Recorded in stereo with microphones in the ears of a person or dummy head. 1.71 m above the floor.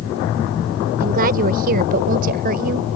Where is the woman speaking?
50° right (ahead or behind).